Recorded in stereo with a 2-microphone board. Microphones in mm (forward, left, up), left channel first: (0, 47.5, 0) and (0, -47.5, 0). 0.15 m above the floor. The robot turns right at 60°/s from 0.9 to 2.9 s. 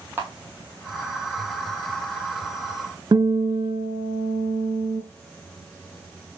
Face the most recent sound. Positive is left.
turn(degrees=-50)  # may be behind; listen again after turning